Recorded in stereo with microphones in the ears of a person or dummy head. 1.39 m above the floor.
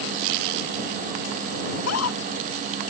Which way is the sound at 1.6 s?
90° left.